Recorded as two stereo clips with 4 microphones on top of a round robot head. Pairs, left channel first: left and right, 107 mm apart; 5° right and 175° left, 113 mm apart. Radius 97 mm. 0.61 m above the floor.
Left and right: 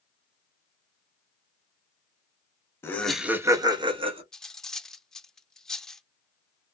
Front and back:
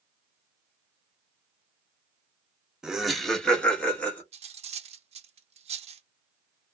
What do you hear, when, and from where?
2.8 s laughter: 95° left, 0.8 m; by 4.2 s 80° right, 1.3 m
4.3 s cutlery clinking: 175° left, 0.7 m